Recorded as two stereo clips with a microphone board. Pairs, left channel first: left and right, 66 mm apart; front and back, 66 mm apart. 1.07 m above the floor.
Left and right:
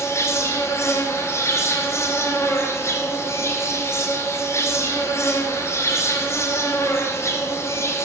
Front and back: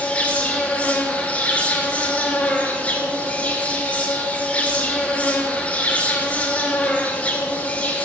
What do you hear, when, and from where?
0.0 s an insect: 60° left, 0.7 m